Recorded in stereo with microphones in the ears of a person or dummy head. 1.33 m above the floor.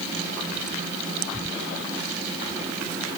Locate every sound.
Only background noise.